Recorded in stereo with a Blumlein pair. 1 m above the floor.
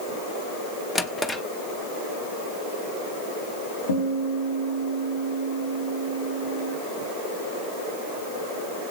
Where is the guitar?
65° left, 5 m.